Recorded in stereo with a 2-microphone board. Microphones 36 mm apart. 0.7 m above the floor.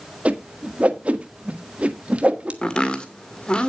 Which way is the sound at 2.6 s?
25° left (ahead or behind).